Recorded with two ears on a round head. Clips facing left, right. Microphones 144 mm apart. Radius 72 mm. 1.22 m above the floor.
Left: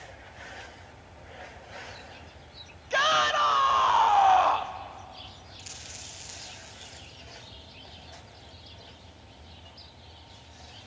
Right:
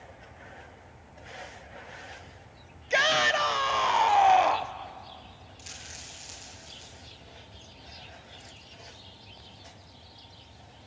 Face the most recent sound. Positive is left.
turn(degrees=0)  # may be behind; listen again after turning